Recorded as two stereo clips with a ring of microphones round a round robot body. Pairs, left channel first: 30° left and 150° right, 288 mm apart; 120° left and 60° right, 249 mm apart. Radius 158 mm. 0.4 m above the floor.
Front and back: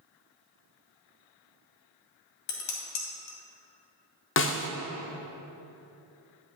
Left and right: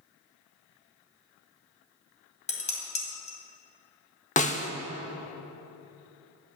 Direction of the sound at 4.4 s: 65° left.